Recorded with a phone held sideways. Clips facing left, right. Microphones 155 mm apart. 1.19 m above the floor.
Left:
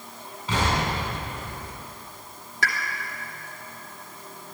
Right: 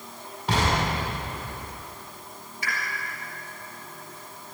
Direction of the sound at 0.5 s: 85° right.